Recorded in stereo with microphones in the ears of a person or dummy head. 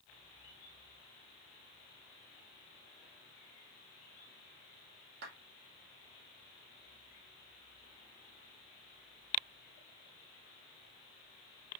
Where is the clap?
60° right (ahead or behind), 3 m.